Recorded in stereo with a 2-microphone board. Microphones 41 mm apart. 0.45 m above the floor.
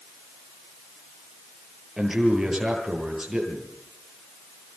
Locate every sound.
2.0 s a man speaking: 15° right (ahead or behind), 9.5 m